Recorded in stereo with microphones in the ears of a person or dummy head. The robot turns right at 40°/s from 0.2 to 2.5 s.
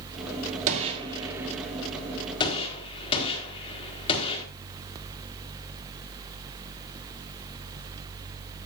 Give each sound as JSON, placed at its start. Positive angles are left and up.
{"t": 0.7, "sound": "a gunshot", "side_deg": -40, "distance_m": 3.5}